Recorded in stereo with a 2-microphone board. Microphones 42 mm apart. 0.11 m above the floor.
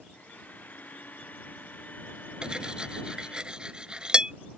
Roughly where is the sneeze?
I don't hear a sneeze.